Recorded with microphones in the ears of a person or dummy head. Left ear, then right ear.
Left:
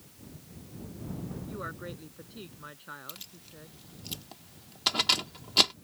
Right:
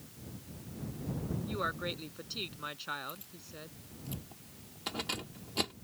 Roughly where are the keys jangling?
Left.